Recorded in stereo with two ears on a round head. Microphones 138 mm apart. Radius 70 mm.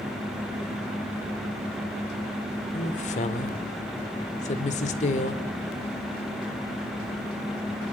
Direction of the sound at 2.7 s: 45° left (ahead or behind).